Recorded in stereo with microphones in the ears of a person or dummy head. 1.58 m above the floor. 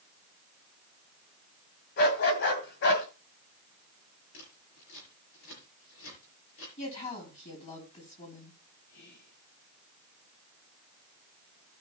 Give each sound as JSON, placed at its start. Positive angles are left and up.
{"t": 2.0, "sound": "a dog barking", "side_deg": 60, "distance_m": 2.5}
{"t": 4.3, "sound": "scissors", "side_deg": 75, "distance_m": 6.0}
{"t": 6.8, "sound": "a woman speaking", "side_deg": 35, "distance_m": 5.0}
{"t": 8.9, "sound": "whispering", "side_deg": 60, "distance_m": 1.6}